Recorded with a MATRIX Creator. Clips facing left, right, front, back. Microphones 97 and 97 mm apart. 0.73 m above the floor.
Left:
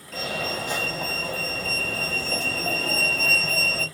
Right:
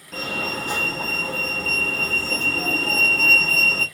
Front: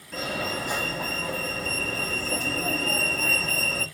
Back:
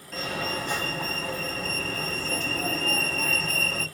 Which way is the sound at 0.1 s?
75° right.